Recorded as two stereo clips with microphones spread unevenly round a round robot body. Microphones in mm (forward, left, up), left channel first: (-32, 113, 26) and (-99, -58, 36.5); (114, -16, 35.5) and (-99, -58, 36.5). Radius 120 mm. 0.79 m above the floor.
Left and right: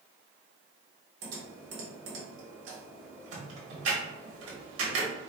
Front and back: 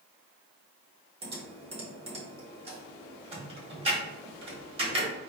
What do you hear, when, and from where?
1.2 s typing on a keyboard: 105° right, 1.3 m